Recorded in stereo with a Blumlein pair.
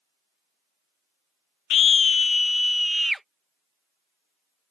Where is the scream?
30° left; by 3.2 s 5° right.